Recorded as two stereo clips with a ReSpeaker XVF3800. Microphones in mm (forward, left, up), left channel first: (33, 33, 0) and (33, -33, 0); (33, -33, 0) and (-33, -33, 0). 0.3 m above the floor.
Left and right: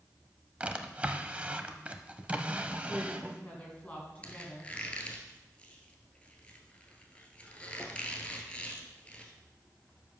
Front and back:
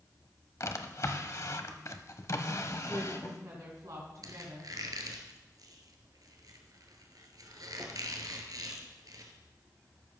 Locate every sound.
0.6 s a drawer: 25° right, 0.8 m
2.9 s a woman speaking: 160° left, 3 m
4.2 s a squeak: 160° left, 1.6 m